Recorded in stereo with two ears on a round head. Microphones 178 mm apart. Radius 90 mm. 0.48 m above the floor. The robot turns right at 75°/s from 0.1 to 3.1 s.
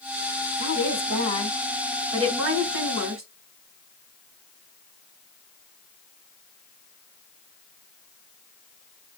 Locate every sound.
0.6 s a woman speaking: 90° left, 4.5 m; by 3.2 s 85° right, 4.5 m